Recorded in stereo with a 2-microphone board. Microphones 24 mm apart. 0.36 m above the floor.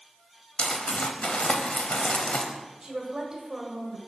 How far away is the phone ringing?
No phone ringing in this recording.